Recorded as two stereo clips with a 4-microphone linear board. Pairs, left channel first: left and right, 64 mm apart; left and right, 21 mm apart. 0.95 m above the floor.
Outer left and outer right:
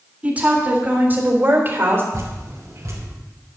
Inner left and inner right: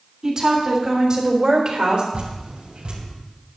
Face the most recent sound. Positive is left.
turn(degrees=-60)  # may be behind; listen again after turning